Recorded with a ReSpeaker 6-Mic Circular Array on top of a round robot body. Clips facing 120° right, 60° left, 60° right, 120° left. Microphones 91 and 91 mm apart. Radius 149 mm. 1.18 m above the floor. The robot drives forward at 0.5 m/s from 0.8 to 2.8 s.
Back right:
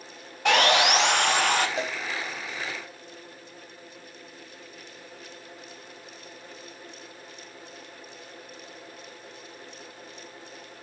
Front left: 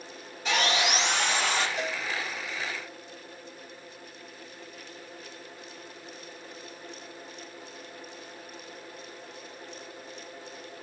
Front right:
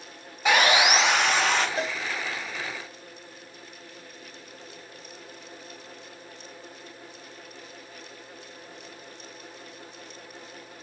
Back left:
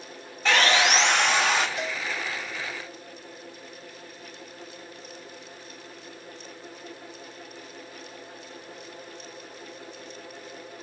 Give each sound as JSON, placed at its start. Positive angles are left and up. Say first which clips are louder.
{"t": 0.5, "sound": "sawing", "louder": "back right 6 dB, front right 1 dB", "azimuth_deg": -140, "distance_m": 0.8}
{"t": 1.8, "sound": "a cowbell", "louder": "back right 2 dB, front right 2 dB", "azimuth_deg": -115, "distance_m": 0.6}